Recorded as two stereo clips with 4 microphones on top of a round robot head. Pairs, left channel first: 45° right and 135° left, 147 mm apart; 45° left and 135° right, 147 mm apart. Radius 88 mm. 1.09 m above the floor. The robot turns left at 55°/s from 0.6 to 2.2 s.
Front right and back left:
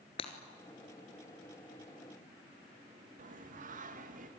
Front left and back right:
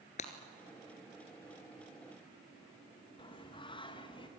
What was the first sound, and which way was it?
Breaking glass, 5° left.